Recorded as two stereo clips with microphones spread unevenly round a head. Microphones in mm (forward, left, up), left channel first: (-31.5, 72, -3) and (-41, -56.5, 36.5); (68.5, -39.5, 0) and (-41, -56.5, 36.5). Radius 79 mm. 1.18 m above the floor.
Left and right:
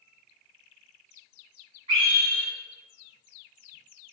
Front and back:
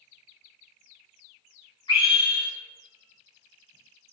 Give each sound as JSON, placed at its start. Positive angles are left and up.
{"t": 1.9, "sound": "a scream", "azimuth_deg": -35, "distance_m": 2.5}